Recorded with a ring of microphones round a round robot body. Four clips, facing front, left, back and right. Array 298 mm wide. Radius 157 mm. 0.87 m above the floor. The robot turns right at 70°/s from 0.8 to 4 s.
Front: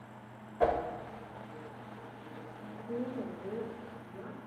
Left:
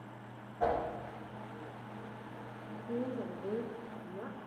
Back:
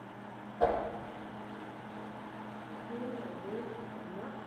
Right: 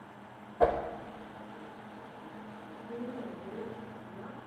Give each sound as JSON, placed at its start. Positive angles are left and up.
{"t": 0.6, "sound": "a whoosh", "azimuth_deg": -75, "distance_m": 0.7}
{"t": 2.7, "sound": "a woman speaking", "azimuth_deg": 30, "distance_m": 1.2}